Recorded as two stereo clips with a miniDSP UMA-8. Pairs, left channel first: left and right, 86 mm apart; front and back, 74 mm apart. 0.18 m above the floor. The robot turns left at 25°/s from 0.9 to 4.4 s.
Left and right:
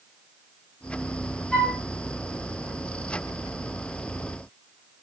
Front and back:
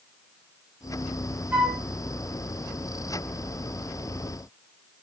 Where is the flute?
155° left, 1.1 m; by 1.8 s 145° left, 1.1 m.